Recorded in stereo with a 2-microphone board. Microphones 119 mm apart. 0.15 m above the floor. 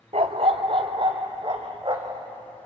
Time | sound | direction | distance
0.1 | a dog barking | 65° right (ahead or behind) | 0.9 m